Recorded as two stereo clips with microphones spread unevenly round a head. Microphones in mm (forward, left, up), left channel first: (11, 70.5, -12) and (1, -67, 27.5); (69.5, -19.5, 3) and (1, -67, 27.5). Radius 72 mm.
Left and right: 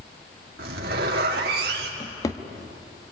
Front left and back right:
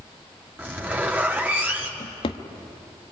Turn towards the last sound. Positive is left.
turn(degrees=15)